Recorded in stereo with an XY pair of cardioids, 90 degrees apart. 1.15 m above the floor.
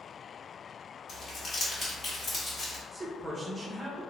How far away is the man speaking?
About 1.0 m.